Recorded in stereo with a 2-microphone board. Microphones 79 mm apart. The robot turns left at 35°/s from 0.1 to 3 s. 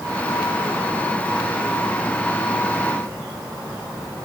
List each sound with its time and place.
Only background noise.